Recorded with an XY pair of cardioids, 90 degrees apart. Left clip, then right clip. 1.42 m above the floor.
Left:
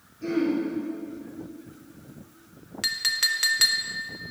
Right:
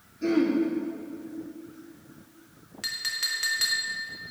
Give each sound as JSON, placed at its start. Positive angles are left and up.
{"t": 0.2, "sound": "throat clearing", "azimuth_deg": -45, "distance_m": 3.0}
{"t": 2.8, "sound": "a clink", "azimuth_deg": 50, "distance_m": 1.4}